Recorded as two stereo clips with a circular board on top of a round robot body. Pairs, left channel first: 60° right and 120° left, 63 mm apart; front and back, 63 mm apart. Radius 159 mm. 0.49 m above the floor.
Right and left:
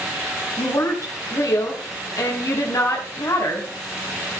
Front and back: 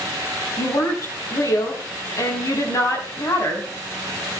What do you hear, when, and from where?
0.6 s a woman speaking: 30° right, 5 m